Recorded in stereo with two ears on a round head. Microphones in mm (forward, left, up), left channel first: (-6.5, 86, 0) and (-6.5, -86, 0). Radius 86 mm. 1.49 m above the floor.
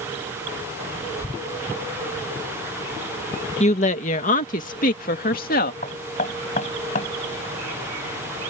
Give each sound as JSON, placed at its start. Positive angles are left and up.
{"t": 3.6, "sound": "a woman speaking", "side_deg": 35}
{"t": 5.8, "sound": "knocking", "side_deg": 40}